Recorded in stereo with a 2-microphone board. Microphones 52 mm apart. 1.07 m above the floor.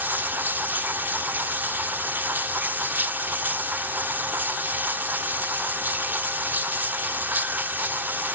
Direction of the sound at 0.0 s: 40° right (ahead or behind).